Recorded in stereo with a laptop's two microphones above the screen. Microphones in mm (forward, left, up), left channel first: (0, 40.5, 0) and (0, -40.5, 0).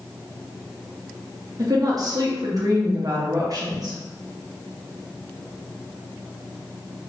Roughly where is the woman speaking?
Right.